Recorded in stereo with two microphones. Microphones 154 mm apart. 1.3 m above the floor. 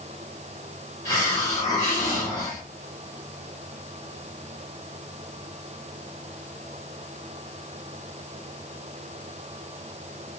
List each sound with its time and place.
1.1 s a hiss: 20° left (ahead or behind), 2.0 m